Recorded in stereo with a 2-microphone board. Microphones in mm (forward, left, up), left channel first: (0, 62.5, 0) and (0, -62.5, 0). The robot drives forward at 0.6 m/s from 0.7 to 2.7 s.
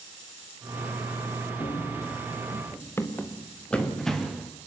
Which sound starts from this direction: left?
Running footsteps, at 1.6 s.